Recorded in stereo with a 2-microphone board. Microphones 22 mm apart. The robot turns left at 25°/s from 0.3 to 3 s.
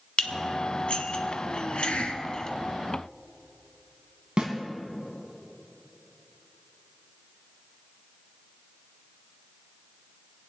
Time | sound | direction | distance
0.2 | dishes clattering | 50° left (ahead or behind) | 1.0 m
1.5 | a hiss | 90° left | 0.8 m
4.4 | a snare drum | 45° right (ahead or behind) | 2.5 m